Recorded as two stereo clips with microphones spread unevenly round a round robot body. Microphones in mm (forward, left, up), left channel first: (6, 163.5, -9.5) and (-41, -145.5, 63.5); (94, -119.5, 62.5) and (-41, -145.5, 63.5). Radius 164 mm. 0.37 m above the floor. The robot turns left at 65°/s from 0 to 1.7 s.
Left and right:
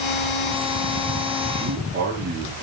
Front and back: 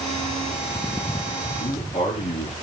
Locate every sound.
1.6 s a man speaking: 20° right, 7.5 m; by 2.5 s 30° right, 7.5 m